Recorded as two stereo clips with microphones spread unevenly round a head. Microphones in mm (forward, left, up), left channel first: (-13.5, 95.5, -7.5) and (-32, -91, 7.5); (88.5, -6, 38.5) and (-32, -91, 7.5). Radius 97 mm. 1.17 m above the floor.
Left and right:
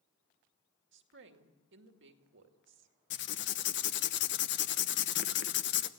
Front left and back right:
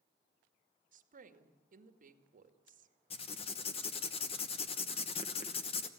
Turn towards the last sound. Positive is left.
turn(degrees=95)